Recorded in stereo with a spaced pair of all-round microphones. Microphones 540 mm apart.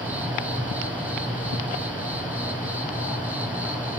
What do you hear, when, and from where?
0.0 s an insect: 5° right (ahead or behind), 1.4 m